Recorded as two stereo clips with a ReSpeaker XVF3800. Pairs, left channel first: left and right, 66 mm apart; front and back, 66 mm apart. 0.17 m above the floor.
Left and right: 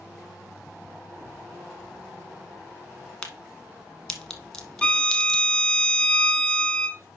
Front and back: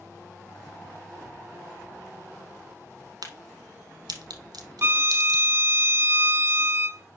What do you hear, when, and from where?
3.2 s a crack: 170° left, 1.2 m
4.8 s a violin: 155° left, 0.5 m